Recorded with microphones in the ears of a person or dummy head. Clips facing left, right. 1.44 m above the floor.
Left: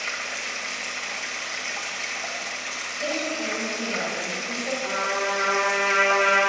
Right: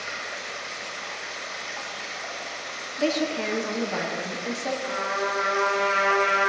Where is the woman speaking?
70° right (ahead or behind), 0.9 m.